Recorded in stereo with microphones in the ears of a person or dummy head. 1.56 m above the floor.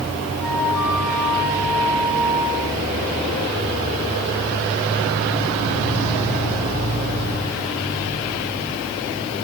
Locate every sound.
0.4 s a flute: 5° right (ahead or behind), 9.5 m